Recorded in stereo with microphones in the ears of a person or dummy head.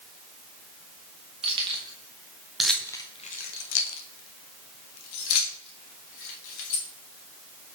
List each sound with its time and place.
1.4 s keys jangling: 25° right (ahead or behind), 1.4 m; by 6.9 s 70° left (ahead or behind), 2.5 m